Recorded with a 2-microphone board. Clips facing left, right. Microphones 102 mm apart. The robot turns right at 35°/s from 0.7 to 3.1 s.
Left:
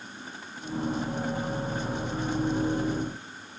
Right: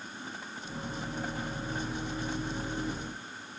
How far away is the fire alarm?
I don't hear a fire alarm.